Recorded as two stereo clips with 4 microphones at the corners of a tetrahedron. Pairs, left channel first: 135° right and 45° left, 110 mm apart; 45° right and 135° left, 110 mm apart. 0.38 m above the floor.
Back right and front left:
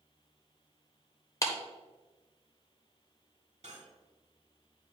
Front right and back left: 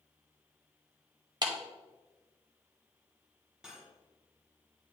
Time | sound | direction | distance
1.4 | a clap | 170° left | 1.0 m
3.6 | cutlery clinking | 50° left | 1.5 m